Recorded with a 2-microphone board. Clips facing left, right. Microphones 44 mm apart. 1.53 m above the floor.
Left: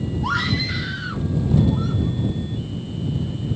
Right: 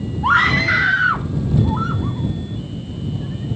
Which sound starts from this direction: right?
A scream, at 0.2 s.